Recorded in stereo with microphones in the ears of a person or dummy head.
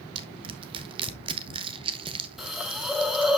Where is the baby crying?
No baby crying in this recording.